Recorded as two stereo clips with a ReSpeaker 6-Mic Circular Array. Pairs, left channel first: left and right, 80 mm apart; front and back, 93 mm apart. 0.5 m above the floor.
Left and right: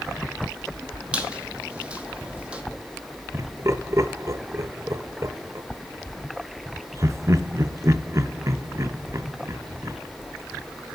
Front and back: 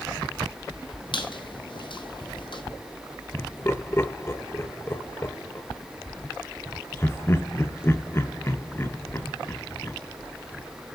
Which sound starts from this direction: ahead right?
Laughter, at 3.3 s.